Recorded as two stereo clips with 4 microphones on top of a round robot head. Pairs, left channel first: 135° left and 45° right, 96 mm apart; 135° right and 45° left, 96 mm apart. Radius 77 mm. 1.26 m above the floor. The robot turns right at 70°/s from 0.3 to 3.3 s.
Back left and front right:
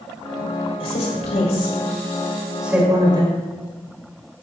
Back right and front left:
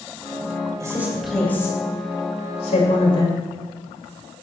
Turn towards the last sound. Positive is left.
turn(degrees=-80)